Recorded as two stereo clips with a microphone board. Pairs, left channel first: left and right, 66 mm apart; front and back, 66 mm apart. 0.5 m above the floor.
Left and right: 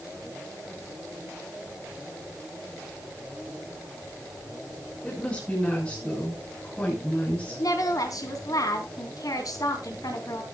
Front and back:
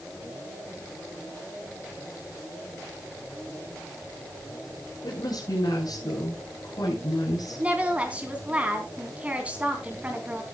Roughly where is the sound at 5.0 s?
Ahead.